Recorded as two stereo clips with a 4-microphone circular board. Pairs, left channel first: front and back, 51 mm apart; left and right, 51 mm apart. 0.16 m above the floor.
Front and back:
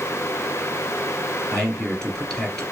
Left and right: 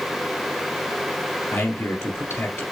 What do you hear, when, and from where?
1.5 s a man speaking: 75° left, 2.5 m